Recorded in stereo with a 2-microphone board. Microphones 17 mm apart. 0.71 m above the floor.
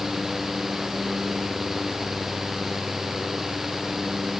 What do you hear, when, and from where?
Only background noise.